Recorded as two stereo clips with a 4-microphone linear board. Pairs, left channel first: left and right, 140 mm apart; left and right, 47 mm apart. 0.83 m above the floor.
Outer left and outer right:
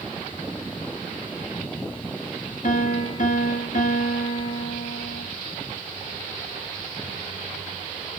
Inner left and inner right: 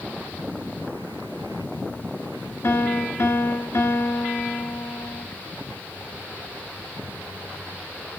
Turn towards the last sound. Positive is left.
turn(degrees=65)  # may be behind; listen again after turning